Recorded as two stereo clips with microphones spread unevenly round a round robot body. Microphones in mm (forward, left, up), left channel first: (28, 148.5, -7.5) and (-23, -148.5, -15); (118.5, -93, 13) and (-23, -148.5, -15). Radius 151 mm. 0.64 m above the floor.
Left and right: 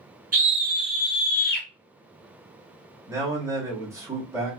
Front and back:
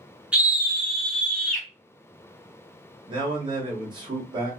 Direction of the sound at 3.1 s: 175° right.